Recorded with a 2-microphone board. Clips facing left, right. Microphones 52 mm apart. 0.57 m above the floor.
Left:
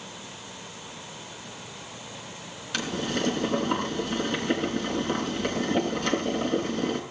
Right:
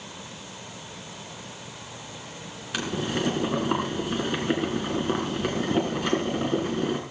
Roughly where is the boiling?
Centre.